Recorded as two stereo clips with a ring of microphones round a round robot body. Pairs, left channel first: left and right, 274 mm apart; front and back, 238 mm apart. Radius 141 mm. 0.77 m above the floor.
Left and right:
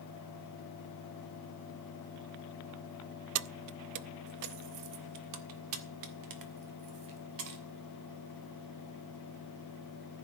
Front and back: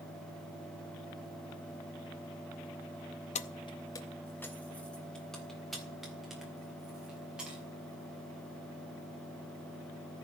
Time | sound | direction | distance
3.4 | keys jangling | 60° right | 0.5 m